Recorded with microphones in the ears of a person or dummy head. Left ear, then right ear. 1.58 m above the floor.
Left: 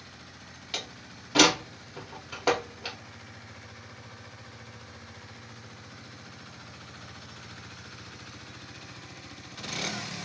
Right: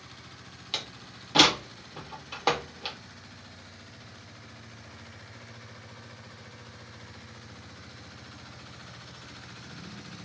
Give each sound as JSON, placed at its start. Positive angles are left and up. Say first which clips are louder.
{"t": 0.7, "sound": "a door slam", "louder": "right 1 dB", "side_deg": -15, "distance_m": 0.9}